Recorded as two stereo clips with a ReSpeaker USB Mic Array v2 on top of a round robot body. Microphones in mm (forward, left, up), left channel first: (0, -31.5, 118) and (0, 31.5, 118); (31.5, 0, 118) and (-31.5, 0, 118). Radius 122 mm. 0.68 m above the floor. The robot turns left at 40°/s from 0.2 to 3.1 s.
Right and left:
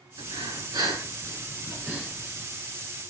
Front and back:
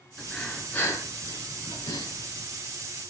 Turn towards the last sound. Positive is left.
turn(degrees=-30)